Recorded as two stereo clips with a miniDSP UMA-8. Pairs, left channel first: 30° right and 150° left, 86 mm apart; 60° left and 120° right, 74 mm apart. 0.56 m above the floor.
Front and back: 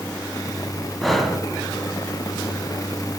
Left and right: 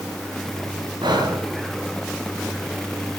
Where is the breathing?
120° right, 2 m.